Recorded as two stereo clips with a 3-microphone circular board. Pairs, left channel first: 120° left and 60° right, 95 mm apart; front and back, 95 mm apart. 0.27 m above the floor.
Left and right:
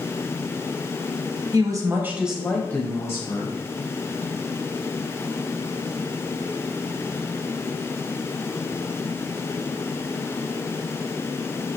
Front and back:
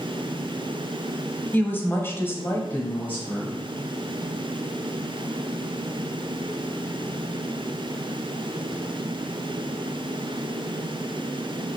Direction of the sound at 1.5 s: 60° right.